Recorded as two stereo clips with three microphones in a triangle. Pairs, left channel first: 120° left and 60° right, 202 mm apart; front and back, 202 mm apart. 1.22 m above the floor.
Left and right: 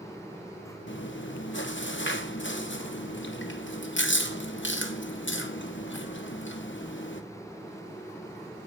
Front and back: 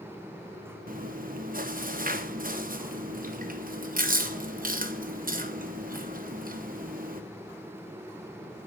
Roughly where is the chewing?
Behind left.